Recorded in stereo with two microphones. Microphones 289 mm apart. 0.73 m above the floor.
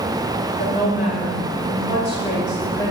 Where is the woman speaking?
35° left (ahead or behind), 3 m; by 2.9 s 10° left (ahead or behind), 3 m.